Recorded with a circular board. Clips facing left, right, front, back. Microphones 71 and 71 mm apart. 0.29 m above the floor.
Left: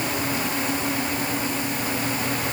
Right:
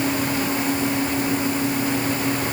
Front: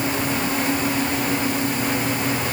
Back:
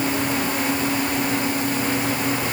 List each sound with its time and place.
Only background noise.